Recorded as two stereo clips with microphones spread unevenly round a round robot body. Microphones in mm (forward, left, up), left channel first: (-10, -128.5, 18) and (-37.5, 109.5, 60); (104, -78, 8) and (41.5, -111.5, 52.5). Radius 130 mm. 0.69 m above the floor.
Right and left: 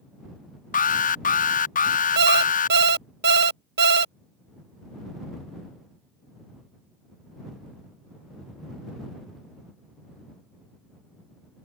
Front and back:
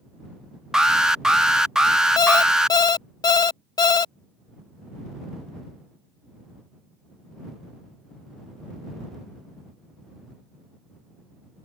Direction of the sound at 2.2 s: 45° left.